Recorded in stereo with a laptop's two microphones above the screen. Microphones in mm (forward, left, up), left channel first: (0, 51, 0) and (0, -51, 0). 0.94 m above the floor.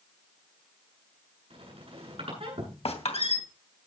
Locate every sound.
1.5 s a squeak: 65° right (ahead or behind), 9 m
2.9 s a squeak: 80° left, 2.5 m